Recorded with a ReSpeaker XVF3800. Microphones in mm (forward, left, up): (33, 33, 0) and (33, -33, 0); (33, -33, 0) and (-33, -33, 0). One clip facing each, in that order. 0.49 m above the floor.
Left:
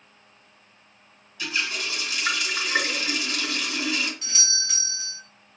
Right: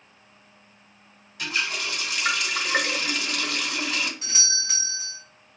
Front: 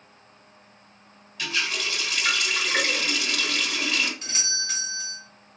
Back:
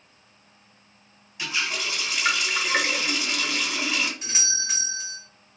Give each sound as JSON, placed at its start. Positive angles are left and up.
{"t": 1.4, "sound": "a running tap", "azimuth_deg": -110, "distance_m": 1.2}
{"t": 4.2, "sound": "a doorbell", "azimuth_deg": -125, "distance_m": 2.0}